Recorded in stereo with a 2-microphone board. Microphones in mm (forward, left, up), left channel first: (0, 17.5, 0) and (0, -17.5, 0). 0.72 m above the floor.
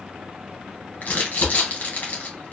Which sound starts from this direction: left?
Crumpling, at 1.0 s.